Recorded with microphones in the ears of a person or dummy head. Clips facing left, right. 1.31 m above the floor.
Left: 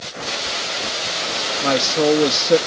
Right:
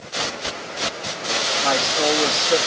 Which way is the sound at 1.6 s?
45° left (ahead or behind).